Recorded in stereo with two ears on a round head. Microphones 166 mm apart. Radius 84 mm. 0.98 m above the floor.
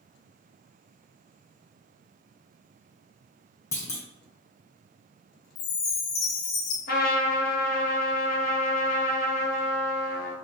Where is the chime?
45° left (ahead or behind), 0.7 m.